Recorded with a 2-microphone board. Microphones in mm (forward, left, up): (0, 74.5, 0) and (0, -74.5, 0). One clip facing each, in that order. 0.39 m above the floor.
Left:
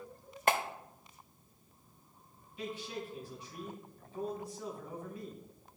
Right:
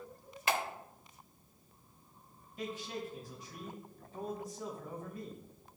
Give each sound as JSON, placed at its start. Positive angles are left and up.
{"t": 0.5, "sound": "a clap", "side_deg": 50, "distance_m": 0.8}
{"t": 2.6, "sound": "a man speaking", "side_deg": -45, "distance_m": 3.0}